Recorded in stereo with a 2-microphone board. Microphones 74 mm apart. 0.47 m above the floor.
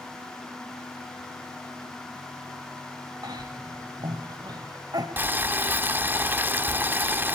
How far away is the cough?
About 1.7 m.